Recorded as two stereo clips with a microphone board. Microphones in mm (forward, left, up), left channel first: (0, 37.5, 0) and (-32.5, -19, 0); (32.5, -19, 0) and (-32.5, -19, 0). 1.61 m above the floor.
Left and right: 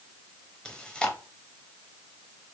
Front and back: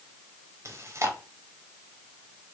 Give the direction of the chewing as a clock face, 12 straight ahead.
7 o'clock.